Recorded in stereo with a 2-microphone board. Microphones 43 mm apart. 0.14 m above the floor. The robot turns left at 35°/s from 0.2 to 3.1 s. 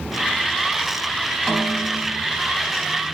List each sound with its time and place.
1.5 s a snare drum: 15° right (ahead or behind), 5 m; by 2.2 s 10° left (ahead or behind), 5 m